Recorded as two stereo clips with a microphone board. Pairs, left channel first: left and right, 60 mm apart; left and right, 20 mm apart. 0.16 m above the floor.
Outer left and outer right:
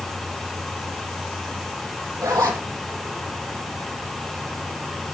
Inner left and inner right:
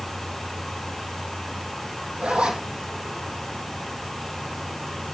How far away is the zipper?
About 3 m.